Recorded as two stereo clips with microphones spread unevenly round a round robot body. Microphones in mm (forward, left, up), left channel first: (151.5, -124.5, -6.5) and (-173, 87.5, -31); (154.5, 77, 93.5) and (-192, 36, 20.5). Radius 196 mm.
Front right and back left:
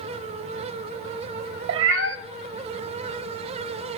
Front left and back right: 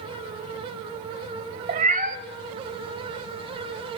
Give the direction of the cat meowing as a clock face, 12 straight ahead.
8 o'clock.